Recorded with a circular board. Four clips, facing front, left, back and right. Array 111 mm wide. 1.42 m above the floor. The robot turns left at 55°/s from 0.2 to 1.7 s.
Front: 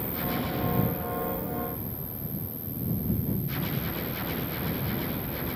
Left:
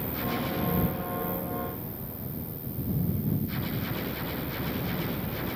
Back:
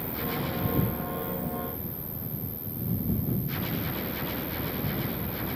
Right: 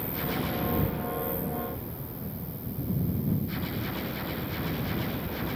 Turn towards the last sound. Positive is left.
turn(degrees=-110)